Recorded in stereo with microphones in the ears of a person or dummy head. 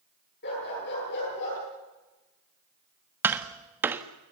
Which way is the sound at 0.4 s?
55° left (ahead or behind).